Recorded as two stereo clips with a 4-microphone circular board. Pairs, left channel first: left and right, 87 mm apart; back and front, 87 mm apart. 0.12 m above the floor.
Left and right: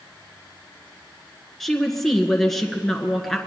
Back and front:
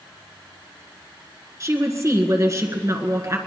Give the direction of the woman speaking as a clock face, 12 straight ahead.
12 o'clock.